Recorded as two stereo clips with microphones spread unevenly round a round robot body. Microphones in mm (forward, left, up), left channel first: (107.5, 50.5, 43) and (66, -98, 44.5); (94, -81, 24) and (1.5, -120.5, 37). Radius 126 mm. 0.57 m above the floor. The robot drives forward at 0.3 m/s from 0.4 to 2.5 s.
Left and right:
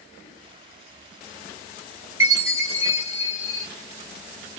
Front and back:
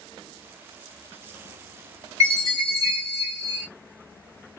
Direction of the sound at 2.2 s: 145° right.